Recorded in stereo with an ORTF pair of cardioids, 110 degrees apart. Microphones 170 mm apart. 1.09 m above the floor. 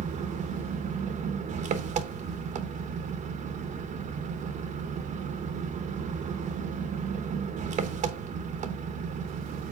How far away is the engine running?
About 0.9 m.